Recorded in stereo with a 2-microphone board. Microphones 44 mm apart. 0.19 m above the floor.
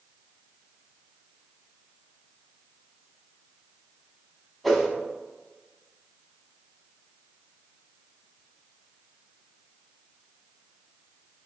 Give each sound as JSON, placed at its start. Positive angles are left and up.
{"t": 4.6, "sound": "a whoosh", "side_deg": 0, "distance_m": 0.7}